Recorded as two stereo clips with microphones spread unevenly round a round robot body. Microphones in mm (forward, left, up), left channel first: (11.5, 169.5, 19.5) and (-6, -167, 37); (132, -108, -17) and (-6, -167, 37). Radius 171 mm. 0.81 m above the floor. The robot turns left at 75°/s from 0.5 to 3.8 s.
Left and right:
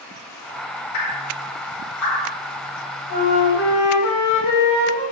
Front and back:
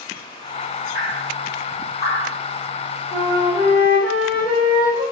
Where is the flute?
140° left, 4 m; by 5.0 s 90° left, 4 m.